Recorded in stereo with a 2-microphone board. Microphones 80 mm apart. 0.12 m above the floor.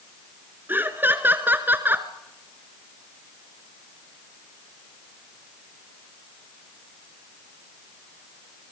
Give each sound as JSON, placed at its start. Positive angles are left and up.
{"t": 0.7, "sound": "laughter", "side_deg": -25, "distance_m": 1.5}